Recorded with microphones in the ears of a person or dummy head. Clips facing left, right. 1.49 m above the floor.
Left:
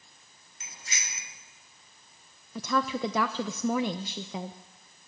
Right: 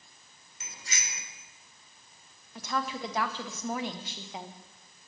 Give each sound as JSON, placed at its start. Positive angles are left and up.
{"t": 0.6, "sound": "a bicycle bell", "side_deg": -80, "distance_m": 3.5}
{"t": 2.5, "sound": "a woman speaking", "side_deg": 75, "distance_m": 0.7}